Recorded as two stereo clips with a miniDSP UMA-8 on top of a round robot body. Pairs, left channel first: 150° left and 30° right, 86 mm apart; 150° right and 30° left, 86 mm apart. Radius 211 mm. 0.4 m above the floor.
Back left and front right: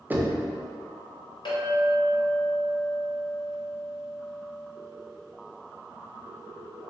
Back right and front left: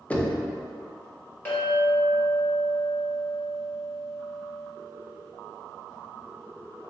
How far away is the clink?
About 1.7 m.